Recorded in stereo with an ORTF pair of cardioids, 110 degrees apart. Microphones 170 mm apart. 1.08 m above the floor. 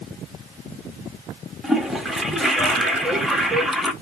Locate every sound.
1.6 s a toilet flushing: straight ahead, 0.9 m